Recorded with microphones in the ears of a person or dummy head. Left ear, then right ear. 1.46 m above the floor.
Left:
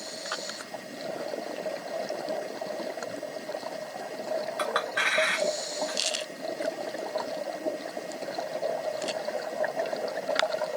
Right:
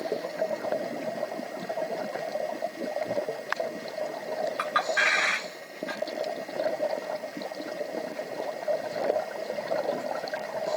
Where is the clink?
5° right (ahead or behind), 1.1 m.